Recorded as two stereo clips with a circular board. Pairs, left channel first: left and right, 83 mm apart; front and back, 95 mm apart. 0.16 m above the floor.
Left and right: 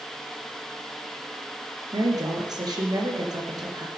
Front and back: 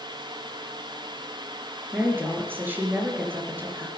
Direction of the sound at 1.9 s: 115° right.